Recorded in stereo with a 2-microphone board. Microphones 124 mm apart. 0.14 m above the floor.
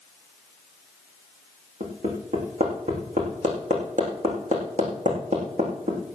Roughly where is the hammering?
Right.